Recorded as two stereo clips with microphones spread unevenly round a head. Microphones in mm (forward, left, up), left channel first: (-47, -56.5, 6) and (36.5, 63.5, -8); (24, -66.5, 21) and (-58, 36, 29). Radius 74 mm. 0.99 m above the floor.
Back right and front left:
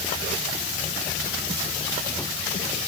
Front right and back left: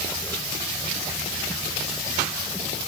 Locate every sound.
Only background noise.